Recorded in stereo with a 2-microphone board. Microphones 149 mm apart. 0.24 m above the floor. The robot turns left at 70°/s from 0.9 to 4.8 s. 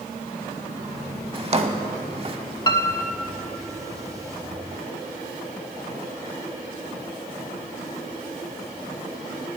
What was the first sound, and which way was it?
A drawer, 35° right (ahead or behind).